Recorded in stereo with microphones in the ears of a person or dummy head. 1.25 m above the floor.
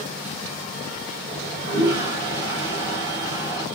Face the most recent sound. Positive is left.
turn(degrees=-10)  # may be behind; listen again after turning